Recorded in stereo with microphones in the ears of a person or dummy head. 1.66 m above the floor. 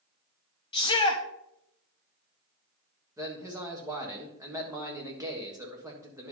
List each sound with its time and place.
0.7 s a shout: 25° left (ahead or behind), 0.7 m
3.2 s a man speaking: 20° right (ahead or behind), 1.5 m